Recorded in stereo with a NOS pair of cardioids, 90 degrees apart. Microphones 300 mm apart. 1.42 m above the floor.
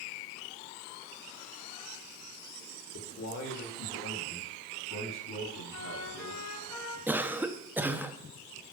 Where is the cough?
5° right, 0.9 m.